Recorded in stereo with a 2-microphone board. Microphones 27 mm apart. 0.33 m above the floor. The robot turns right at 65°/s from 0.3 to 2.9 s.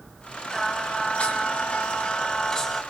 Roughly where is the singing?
Ahead left.